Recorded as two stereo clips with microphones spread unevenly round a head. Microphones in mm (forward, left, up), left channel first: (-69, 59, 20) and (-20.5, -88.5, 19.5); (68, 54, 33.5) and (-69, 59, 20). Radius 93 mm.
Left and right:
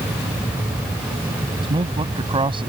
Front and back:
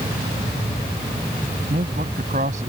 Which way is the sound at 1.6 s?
130° right.